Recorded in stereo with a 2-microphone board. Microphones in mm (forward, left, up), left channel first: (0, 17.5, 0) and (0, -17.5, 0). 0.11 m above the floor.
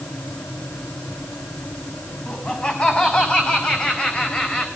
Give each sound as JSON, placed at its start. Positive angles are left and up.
{"t": 2.3, "sound": "laughter", "side_deg": 35, "distance_m": 7.0}